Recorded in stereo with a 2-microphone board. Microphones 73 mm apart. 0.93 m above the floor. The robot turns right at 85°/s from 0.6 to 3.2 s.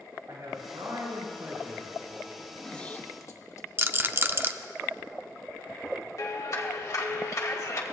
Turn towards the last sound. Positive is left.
turn(degrees=50)  # may be behind; listen again after turning